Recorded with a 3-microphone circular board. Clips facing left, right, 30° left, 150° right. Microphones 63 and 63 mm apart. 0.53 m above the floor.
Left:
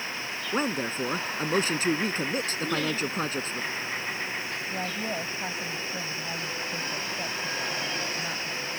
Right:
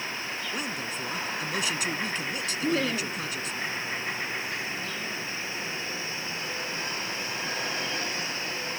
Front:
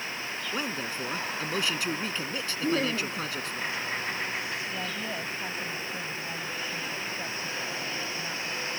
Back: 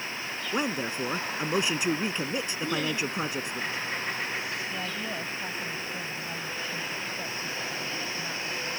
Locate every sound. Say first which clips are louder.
0.5 s a man speaking: left 10 dB, back 5 dB; 140° left
2.6 s laughter: right 4 dB, front 4 dB; 30° right
4.7 s a woman speaking: left 3 dB, even; 120° left